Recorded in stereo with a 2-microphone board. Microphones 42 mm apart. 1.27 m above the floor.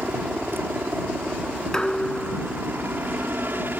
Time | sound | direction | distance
0.0 | a helicopter | 55° right (ahead or behind) | ?
1.7 | dishes clattering | 15° left (ahead or behind) | ?